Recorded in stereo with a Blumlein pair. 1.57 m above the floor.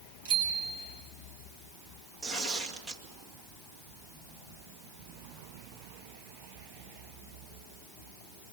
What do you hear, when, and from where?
0.2 s a bicycle bell: 60° right, 6 m
2.2 s tearing paper: 5° right, 2 m